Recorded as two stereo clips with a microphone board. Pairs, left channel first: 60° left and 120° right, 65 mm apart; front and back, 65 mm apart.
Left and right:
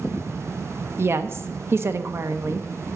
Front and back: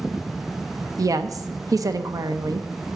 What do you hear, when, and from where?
1.0 s a woman speaking: 165° right, 0.8 m